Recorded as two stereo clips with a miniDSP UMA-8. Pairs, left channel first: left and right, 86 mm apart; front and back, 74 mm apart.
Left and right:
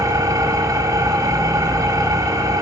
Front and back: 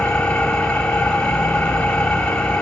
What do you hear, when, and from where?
0.0 s an engine running: 75° right, 1.1 m